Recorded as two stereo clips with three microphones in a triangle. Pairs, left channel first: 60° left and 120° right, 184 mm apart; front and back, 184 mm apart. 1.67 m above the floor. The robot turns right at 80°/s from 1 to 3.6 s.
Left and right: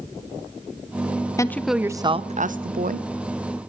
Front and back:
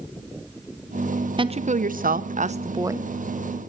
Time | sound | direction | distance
1.4 | a woman speaking | 125° left | 0.8 m